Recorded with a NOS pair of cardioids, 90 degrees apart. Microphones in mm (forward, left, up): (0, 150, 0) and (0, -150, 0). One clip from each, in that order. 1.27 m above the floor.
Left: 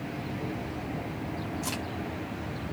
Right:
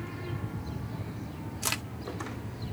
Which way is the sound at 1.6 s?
60° right.